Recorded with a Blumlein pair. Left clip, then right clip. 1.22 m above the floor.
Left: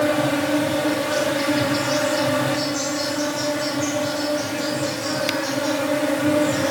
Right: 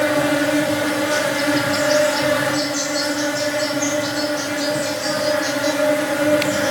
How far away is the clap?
I don't hear a clap.